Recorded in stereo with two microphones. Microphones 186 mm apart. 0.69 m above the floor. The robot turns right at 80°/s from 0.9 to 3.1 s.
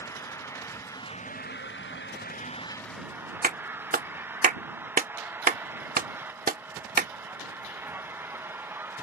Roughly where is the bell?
No bell in this recording.